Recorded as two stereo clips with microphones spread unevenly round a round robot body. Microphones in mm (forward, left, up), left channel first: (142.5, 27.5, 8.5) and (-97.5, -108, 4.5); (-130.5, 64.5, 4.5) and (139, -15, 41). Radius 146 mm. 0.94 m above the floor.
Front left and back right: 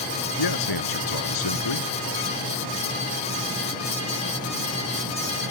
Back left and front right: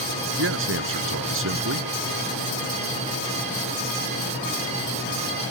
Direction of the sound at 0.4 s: 30° left.